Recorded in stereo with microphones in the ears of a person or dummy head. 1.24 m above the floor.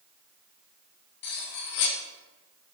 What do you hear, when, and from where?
1.2 s cutlery clinking: 55° left (ahead or behind), 0.9 m